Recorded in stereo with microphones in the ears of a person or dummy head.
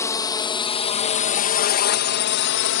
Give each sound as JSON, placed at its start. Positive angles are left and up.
{"t": 0.0, "sound": "a drone", "side_deg": 15}